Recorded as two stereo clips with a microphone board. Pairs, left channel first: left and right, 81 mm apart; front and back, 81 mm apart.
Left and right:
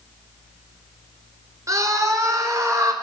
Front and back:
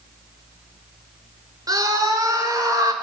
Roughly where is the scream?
Behind right.